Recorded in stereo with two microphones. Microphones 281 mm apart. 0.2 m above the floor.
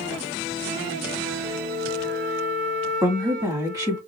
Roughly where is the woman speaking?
Centre.